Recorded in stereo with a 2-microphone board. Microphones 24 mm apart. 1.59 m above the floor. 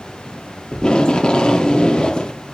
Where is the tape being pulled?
40° left (ahead or behind), 0.5 m.